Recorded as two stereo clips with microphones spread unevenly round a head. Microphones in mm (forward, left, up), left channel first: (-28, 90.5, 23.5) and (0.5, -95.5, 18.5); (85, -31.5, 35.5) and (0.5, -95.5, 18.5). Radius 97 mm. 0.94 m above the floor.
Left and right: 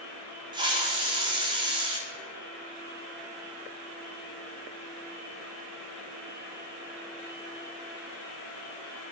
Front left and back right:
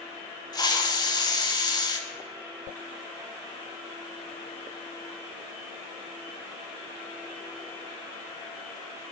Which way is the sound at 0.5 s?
15° right.